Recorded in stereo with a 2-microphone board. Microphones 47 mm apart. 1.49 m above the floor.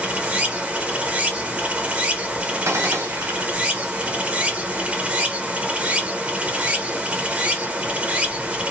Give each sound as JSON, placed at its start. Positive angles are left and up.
{"t": 0.0, "sound": "running water", "side_deg": -25, "distance_m": 0.8}
{"t": 2.6, "sound": "a gunshot", "side_deg": -85, "distance_m": 1.0}